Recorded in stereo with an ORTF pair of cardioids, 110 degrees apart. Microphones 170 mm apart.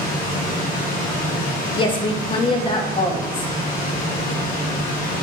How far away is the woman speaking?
About 0.6 m.